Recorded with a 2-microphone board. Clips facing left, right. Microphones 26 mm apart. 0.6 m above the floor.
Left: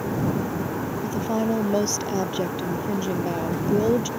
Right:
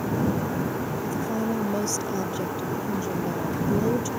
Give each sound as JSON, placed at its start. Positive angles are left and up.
{"t": 1.0, "sound": "a woman speaking", "side_deg": 35}